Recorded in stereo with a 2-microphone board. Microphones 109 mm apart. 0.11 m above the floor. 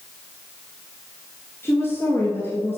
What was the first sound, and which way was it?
A woman speaking, 20° left (ahead or behind).